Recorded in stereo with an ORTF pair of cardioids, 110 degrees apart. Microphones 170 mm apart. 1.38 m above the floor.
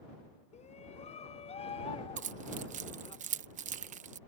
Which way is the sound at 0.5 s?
40° left.